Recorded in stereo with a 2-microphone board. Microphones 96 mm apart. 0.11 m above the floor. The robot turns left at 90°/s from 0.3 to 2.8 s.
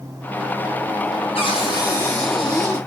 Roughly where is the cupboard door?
Left.